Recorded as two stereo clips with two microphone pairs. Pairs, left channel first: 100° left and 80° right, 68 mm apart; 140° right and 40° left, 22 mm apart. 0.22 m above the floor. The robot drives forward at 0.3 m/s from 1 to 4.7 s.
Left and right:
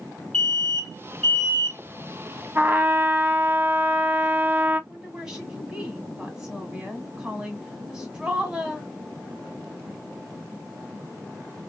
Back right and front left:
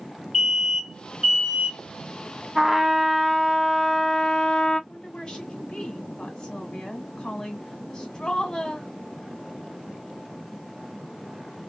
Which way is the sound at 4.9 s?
155° right.